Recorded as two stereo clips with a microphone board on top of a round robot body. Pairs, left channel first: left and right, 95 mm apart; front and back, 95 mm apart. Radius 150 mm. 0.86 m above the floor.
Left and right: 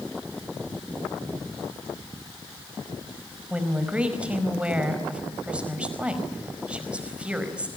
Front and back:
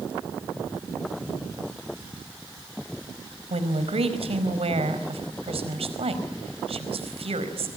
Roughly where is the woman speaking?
Behind.